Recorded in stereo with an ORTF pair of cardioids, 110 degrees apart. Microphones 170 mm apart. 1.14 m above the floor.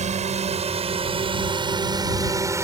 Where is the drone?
40° right; by 2.6 s 15° right.